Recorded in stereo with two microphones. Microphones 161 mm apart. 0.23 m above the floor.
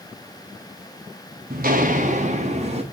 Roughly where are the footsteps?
Right.